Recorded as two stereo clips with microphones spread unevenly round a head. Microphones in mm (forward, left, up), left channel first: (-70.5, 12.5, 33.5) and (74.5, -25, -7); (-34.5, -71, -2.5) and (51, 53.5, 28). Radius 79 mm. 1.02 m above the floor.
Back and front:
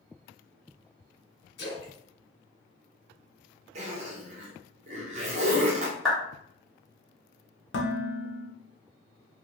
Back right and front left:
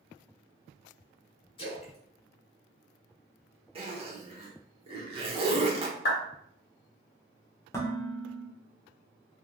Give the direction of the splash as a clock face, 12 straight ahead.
6 o'clock.